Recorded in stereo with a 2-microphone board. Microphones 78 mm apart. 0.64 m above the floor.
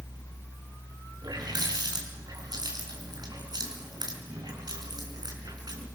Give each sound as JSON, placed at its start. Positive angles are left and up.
{"t": 1.2, "sound": "a running tap", "side_deg": -60, "distance_m": 5.0}